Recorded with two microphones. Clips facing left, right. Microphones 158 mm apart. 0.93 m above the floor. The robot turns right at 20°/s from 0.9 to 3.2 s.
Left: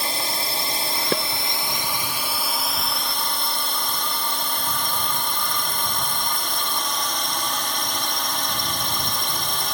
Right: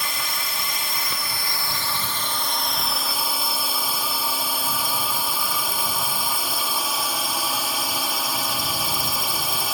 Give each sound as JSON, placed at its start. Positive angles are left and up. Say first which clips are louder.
{"t": 0.0, "sound": "a drone", "louder": "left 3 dB", "azimuth_deg": 140}
{"t": 1.1, "sound": "dishes clattering", "louder": "left 10 dB", "side_deg": 80}